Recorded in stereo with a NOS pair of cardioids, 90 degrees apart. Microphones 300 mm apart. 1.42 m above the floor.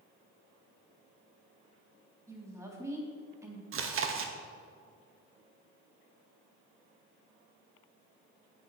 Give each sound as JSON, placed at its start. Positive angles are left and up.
{"t": 2.3, "sound": "a woman speaking", "azimuth_deg": -10, "distance_m": 3.5}
{"t": 3.7, "sound": "chewing", "azimuth_deg": -50, "distance_m": 1.4}